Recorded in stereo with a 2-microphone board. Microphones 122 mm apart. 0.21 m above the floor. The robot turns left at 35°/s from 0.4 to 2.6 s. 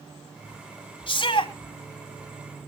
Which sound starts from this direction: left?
A shout, at 1.1 s.